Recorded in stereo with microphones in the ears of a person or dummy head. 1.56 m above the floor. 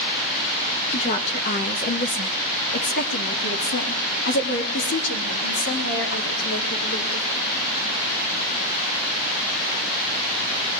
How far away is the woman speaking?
About 1.9 m.